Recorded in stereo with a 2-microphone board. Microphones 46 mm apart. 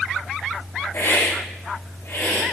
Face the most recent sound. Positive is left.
turn(degrees=75)  # may be behind; listen again after turning